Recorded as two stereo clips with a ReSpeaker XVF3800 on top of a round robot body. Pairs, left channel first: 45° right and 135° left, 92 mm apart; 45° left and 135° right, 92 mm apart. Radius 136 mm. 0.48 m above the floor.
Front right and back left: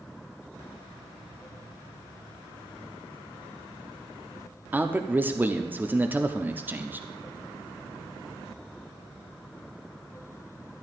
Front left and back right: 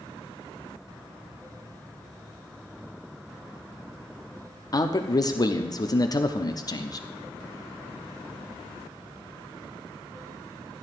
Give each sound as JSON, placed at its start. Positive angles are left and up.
{"t": 4.7, "sound": "a man speaking", "azimuth_deg": 75, "distance_m": 0.9}